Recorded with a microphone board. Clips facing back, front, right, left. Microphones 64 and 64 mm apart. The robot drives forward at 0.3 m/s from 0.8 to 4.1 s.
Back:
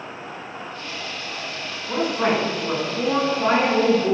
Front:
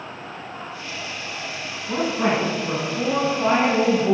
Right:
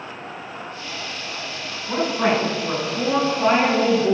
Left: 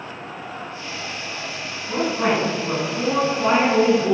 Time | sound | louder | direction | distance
1.9 | a woman speaking | even, right 1 dB | 130° right | 1.3 m